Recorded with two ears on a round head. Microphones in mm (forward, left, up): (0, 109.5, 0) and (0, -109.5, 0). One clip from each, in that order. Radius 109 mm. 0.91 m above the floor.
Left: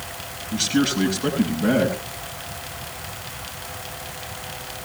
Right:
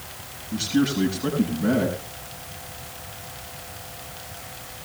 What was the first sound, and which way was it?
A man speaking, 25° left (ahead or behind).